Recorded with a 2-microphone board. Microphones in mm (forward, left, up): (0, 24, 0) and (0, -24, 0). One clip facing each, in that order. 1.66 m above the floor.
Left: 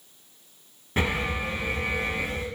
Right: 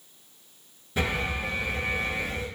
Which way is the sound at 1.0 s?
40° left (ahead or behind).